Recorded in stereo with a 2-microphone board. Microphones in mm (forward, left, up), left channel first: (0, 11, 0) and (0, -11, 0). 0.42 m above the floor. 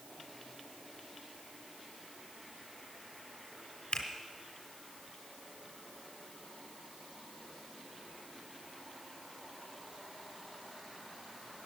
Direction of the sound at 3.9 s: 50° left (ahead or behind).